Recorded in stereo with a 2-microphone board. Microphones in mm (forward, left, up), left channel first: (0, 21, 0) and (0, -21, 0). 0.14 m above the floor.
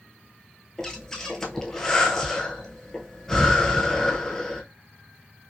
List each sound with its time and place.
0.8 s breathing: 10° left (ahead or behind), 0.8 m